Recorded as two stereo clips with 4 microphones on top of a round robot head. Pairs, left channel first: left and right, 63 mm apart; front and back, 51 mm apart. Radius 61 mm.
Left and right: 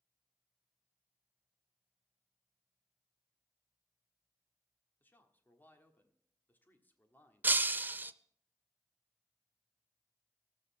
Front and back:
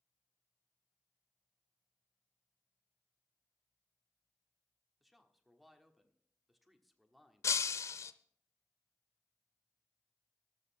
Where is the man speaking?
95° left, 1.5 m.